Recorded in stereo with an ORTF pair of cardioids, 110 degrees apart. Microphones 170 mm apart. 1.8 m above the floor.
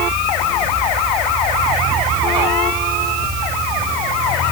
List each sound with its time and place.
Only background noise.